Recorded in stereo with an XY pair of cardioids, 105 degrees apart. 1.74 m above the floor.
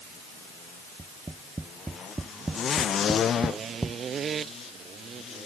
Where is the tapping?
15° right.